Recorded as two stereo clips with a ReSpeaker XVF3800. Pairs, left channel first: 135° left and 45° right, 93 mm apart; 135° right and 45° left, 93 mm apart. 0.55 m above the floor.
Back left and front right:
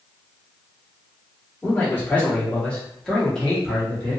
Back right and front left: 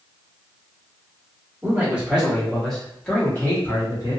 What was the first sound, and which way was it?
A man speaking, 85° left.